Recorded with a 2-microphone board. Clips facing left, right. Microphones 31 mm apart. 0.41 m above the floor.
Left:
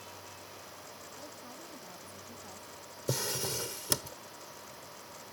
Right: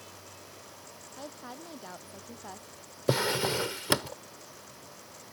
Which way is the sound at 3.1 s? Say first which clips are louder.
Right 8 dB; 40° right (ahead or behind).